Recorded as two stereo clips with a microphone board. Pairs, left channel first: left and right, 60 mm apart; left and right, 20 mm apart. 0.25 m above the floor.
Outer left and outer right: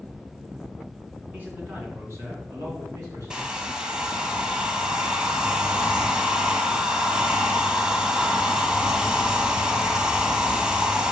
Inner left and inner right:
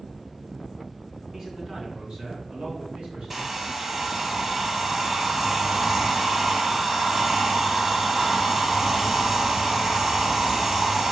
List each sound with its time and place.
1.3 s a man speaking: 30° right (ahead or behind), 3 m; by 3.4 s 70° right (ahead or behind), 3.5 m
3.3 s a hair dryer: 15° right (ahead or behind), 1.1 m